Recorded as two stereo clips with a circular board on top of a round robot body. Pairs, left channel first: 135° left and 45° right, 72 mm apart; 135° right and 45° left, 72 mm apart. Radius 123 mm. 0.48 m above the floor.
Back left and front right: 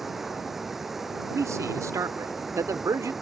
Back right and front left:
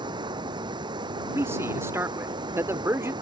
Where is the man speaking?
5° right.